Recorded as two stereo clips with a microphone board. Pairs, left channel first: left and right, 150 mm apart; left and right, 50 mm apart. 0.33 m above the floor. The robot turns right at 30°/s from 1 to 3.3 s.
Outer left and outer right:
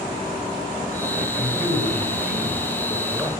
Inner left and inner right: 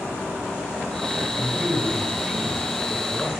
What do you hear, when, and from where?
1.4 s a man speaking: 20° right (ahead or behind), 1.3 m; by 3.3 s 5° right (ahead or behind), 1.3 m